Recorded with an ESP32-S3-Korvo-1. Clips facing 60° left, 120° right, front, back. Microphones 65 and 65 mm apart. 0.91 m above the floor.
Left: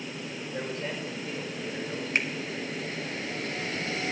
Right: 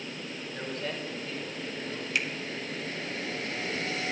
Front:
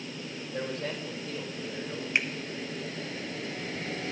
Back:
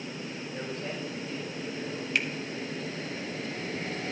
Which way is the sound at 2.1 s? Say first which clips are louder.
Left 2 dB, front 1 dB; 50° left.